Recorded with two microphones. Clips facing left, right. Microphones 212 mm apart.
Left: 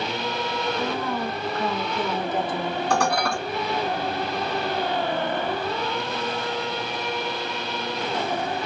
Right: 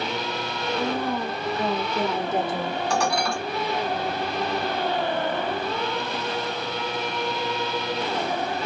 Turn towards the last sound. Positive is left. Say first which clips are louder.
# left 2 dB
turn(degrees=55)  # may be behind; listen again after turning